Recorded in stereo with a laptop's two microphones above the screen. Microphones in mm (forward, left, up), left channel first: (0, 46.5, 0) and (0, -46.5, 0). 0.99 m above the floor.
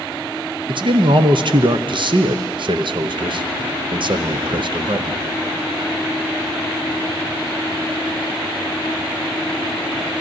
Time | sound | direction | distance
0.7 | a man speaking | 60° right (ahead or behind) | 0.6 m